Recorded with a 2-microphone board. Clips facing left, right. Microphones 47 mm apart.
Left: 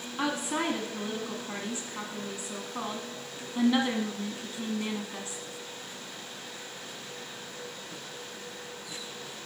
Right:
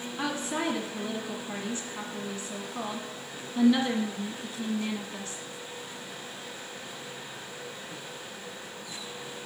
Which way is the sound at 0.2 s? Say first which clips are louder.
Left 1 dB; 20° left (ahead or behind).